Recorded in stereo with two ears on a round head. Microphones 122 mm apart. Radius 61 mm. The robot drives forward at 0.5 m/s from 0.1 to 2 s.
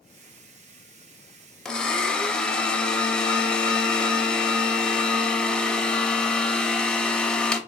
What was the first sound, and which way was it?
A blender, 5° left (ahead or behind).